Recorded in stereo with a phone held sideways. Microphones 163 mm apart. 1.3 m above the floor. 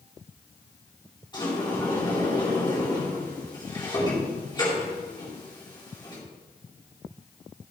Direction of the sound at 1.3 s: 30° left (ahead or behind).